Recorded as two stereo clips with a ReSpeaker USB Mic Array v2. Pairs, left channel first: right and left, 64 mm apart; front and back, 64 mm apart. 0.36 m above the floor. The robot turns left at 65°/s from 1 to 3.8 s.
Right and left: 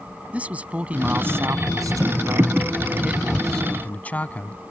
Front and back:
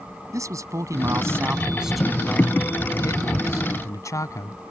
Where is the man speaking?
155° left; by 4.6 s 25° right.